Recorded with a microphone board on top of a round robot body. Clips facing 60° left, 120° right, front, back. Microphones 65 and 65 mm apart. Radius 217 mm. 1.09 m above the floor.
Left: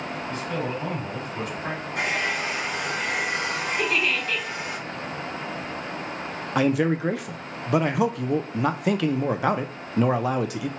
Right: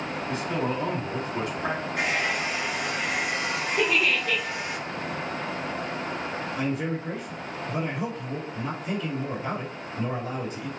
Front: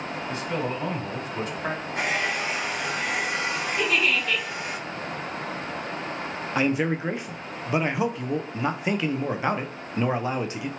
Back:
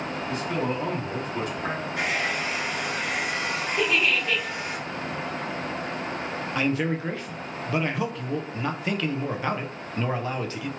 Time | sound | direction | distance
0.3 | a man speaking | 60° right | 3 m
1.9 | a hair dryer | 35° left | 1.1 m
3.8 | a giggle | 100° right | 1.6 m
6.5 | a man speaking | 70° left | 0.6 m